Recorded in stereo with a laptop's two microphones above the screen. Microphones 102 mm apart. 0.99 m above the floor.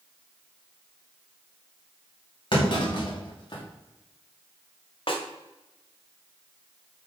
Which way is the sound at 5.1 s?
60° left (ahead or behind).